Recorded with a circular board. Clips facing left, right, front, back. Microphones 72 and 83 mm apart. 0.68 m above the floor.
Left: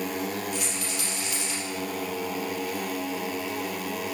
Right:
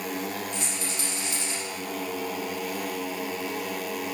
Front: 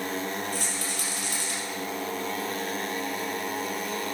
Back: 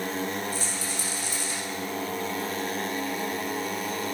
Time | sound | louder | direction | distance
0.5 | a rattle | left 1 dB, even | 30° right | 3 m